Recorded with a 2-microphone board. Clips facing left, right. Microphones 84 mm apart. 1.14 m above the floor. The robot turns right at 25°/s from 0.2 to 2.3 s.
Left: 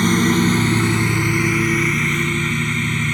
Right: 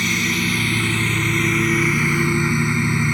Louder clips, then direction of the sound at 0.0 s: Left 7 dB; 140° left.